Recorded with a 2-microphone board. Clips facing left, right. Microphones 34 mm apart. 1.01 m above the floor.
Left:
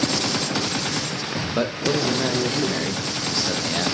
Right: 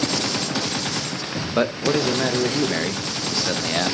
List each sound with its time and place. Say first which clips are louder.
1.6 s a man speaking: right 3 dB; 20° right (ahead or behind), 0.9 m